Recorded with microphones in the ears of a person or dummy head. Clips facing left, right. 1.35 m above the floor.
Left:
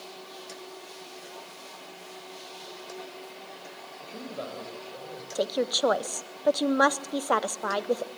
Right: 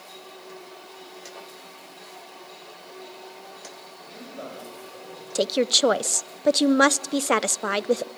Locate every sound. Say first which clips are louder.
4.0 s a man speaking: left 2 dB; 40° left (ahead or behind), 6.5 m; by 5.2 s 30° left (ahead or behind), 7 m
5.3 s a woman speaking: right 4 dB; 35° right (ahead or behind), 0.7 m